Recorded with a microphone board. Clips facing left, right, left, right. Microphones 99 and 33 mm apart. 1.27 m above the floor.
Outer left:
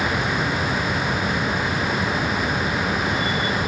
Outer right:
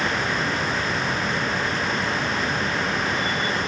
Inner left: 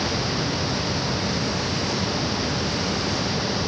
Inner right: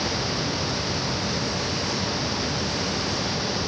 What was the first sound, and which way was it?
Only background noise.